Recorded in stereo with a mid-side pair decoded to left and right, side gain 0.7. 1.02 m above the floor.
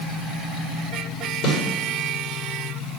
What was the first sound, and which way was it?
A snare drum, 70° left.